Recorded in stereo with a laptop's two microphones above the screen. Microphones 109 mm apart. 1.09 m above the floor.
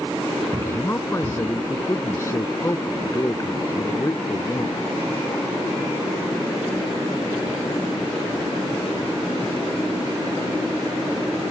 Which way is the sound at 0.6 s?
25° left (ahead or behind).